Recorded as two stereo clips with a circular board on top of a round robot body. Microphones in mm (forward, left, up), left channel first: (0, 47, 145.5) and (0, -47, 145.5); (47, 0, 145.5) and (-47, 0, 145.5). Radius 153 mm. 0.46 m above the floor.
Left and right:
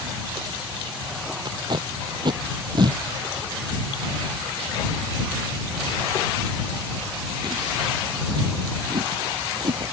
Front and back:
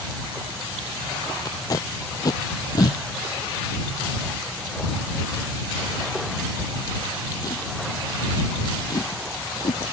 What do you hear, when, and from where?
1.4 s tape being pulled: 50° right